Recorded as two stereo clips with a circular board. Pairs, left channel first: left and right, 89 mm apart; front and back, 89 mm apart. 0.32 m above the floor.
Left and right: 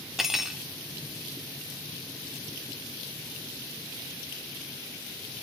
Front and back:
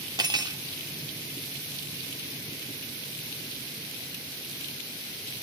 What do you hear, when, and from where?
0.2 s cutlery clinking: 175° right, 1.0 m